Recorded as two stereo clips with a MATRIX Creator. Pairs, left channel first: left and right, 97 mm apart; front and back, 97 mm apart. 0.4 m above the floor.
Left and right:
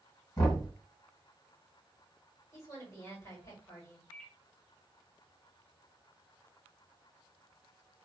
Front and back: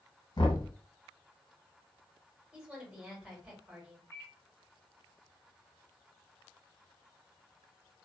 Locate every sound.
0.4 s knocking: 40° left, 1.6 m
2.5 s a woman speaking: 110° left, 1.6 m
4.1 s a microwave: 20° left, 1.1 m